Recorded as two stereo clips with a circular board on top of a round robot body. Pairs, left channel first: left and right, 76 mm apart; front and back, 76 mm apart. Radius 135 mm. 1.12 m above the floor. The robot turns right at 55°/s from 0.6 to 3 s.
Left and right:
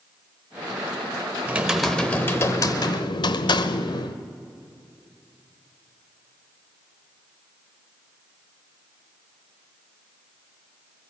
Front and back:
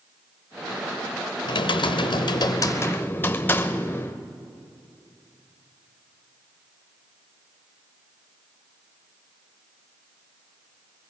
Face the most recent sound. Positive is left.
turn(degrees=65)